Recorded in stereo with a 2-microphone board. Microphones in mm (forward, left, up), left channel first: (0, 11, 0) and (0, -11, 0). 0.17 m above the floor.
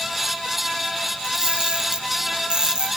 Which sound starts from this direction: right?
A camera shutter, at 1.2 s.